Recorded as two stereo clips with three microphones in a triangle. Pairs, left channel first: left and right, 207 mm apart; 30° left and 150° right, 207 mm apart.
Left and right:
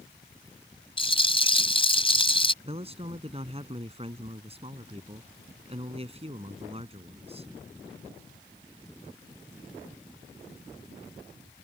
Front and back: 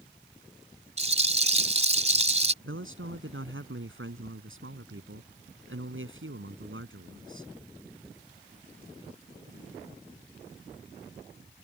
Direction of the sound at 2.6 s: 150° right.